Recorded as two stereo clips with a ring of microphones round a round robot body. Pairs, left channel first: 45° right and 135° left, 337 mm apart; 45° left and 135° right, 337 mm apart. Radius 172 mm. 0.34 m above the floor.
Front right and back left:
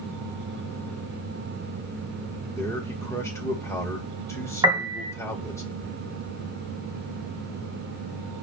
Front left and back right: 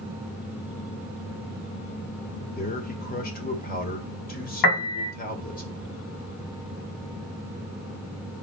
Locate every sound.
2.6 s a man speaking: 25° left, 1.6 m
4.6 s a piano: 55° left, 1.9 m